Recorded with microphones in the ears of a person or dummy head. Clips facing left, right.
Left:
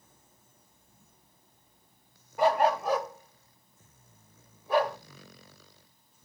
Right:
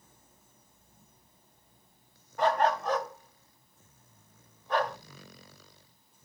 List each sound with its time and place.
2.4 s a dog barking: 10° left (ahead or behind), 0.7 m